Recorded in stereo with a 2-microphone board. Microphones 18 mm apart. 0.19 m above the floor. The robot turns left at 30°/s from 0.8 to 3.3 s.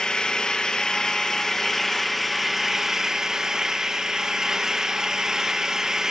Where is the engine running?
40° left, 1.1 m; by 6.1 s 35° right, 1.1 m.